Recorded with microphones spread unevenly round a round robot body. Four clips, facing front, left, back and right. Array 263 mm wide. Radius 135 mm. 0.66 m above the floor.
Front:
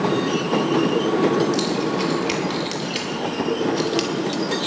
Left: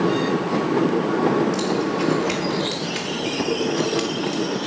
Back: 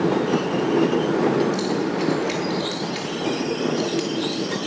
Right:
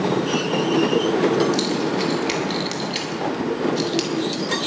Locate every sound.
1.5 s keys jangling: 40° right, 5.5 m